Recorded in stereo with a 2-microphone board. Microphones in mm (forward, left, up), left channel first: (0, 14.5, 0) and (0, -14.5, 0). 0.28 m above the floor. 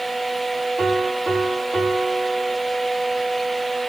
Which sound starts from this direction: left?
A piano, at 0.8 s.